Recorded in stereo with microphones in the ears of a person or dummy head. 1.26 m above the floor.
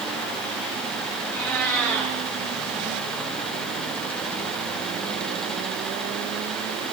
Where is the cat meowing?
5° left (ahead or behind), 5.5 m.